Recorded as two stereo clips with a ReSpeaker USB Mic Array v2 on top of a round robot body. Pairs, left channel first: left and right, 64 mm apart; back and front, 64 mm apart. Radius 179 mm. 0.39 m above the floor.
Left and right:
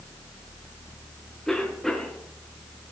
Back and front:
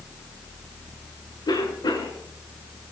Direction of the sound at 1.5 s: 175° left.